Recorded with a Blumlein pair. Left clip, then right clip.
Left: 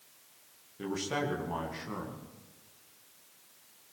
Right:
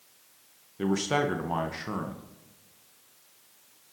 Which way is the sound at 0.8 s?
20° right.